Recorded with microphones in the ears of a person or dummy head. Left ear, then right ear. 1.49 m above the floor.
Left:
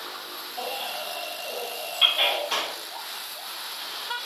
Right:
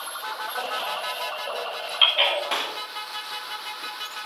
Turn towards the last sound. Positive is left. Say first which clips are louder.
# right 1 dB
turn(degrees=-20)  # may be behind; listen again after turning